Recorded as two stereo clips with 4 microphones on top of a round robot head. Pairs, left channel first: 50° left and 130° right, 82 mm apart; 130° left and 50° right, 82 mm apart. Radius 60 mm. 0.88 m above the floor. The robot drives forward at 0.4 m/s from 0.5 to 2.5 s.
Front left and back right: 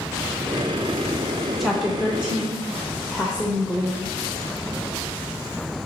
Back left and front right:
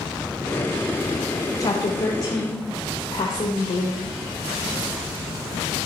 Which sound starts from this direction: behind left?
A woman speaking, at 1.6 s.